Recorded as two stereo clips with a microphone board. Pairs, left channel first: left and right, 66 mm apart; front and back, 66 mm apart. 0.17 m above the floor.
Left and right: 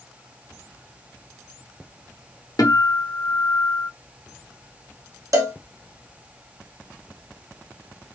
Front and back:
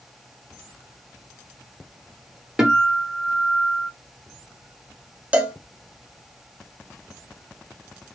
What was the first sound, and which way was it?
A guitar, 105° left.